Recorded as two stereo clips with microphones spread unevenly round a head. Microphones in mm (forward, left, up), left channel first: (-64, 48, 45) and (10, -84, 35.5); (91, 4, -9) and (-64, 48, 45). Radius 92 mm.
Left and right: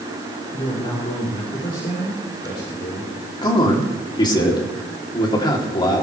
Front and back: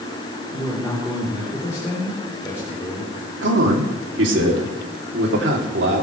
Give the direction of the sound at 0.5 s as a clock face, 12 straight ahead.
10 o'clock.